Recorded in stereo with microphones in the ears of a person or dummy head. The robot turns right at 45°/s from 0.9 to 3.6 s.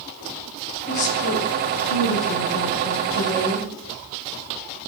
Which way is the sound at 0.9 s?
50° left.